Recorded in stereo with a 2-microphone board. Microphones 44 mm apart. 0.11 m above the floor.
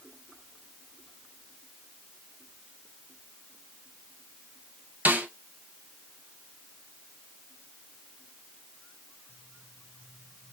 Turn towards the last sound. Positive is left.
turn(degrees=-40)  # may be behind; listen again after turning